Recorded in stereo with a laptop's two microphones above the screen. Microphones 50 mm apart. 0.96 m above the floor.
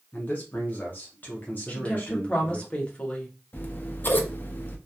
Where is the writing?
I don't hear writing.